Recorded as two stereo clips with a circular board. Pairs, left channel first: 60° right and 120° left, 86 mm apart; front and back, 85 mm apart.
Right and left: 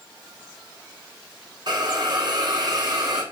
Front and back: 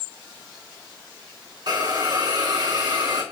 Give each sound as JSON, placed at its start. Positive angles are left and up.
{"t": 1.7, "sound": "a hiss", "azimuth_deg": 150, "distance_m": 5.0}